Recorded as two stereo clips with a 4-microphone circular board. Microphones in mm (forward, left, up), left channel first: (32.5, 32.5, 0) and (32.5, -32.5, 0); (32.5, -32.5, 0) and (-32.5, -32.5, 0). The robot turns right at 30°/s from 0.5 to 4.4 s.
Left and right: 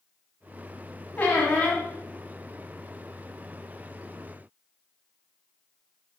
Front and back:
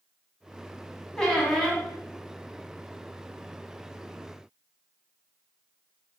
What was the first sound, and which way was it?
A squeak, 65° left.